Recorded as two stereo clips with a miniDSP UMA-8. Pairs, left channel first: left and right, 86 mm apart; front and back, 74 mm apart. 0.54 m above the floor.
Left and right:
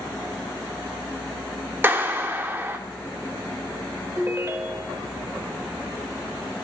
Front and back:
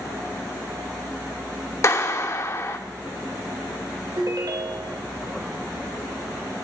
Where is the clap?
35° right, 1.1 m.